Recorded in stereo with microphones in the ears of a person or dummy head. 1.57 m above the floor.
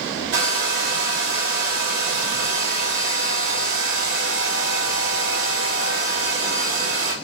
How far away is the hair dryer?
About 1.4 m.